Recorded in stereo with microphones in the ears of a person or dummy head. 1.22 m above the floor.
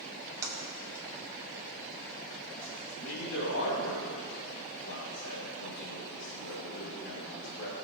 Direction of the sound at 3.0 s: 85° left.